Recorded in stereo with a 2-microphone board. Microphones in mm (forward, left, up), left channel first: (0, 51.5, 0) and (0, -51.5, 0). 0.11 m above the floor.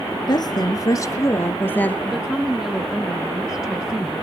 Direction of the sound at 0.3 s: 45° left (ahead or behind).